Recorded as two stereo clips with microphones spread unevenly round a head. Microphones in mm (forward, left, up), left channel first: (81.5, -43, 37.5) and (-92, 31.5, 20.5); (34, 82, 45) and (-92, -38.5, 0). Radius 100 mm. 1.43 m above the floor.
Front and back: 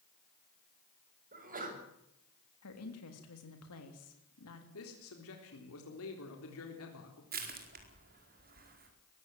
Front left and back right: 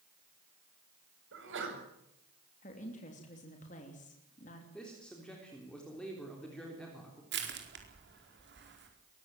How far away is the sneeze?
About 7 m.